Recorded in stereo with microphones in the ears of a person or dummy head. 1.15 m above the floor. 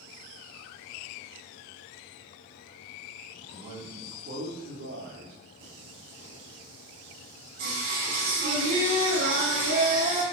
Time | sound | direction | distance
3.5 | a man speaking | 35° right (ahead or behind) | 2.5 m
5.6 | singing | 50° right (ahead or behind) | 3.5 m